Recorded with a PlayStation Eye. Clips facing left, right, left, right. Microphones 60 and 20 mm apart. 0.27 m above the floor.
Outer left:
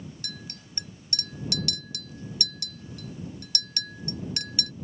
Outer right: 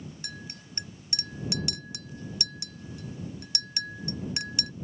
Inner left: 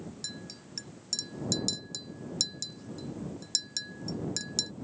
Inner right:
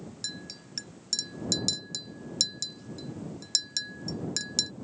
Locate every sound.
0.2 s a clink: 20° right (ahead or behind)